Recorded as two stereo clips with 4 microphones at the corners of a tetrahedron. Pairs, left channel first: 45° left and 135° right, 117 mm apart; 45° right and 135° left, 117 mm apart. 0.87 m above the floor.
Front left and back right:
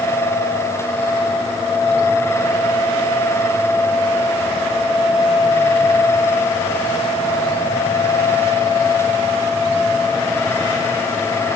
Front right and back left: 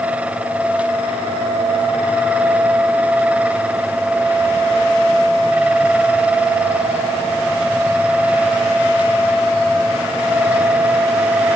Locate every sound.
Only background noise.